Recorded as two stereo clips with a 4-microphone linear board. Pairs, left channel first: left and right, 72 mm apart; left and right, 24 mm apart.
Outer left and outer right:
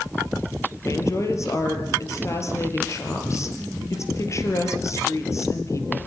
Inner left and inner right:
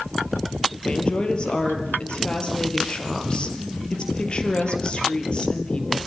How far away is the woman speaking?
About 3.5 m.